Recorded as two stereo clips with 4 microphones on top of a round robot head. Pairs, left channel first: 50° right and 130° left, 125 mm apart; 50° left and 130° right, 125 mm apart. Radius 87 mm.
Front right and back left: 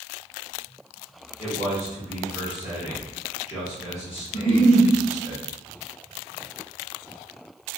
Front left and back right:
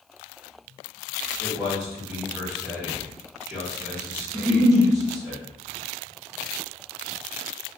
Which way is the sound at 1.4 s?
55° right.